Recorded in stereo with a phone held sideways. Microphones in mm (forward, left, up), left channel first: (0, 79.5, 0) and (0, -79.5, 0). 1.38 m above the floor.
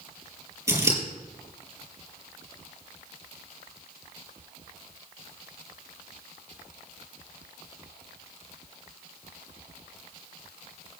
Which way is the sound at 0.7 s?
20° right (ahead or behind).